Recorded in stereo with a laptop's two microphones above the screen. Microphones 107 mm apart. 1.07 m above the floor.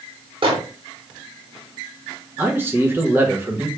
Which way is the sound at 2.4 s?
20° right (ahead or behind).